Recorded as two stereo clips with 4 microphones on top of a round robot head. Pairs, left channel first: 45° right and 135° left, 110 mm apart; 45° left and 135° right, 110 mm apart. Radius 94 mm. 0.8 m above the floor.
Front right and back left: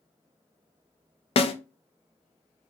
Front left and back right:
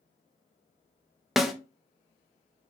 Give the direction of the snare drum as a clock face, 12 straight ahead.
2 o'clock.